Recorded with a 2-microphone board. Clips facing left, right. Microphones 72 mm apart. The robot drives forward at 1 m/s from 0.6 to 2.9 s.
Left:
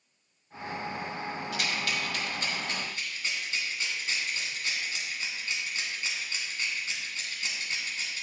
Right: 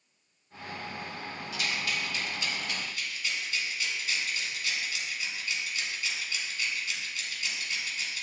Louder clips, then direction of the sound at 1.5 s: Even; 70° left (ahead or behind).